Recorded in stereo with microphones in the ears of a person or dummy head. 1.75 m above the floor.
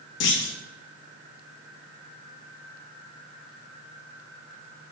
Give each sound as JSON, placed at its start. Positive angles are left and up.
{"t": 0.2, "sound": "a clunk", "side_deg": 65, "distance_m": 0.5}